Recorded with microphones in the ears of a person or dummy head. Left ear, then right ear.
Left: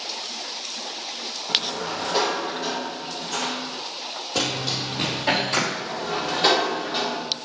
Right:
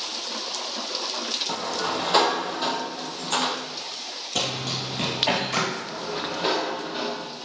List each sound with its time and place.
1.5 s a sliding door: 60° right (ahead or behind), 0.6 m
4.3 s running footsteps: 35° right (ahead or behind), 2.5 m; by 5.6 s 20° right (ahead or behind), 2.5 m
5.7 s a sliding door: 15° left (ahead or behind), 1.0 m